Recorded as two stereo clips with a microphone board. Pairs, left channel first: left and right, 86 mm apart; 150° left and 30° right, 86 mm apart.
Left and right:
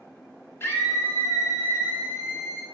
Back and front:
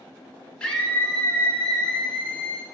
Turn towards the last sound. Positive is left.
turn(degrees=85)